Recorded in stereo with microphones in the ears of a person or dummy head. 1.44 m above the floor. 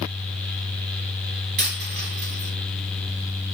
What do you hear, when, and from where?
1.6 s a dropped coin: 35° right (ahead or behind), 1.1 m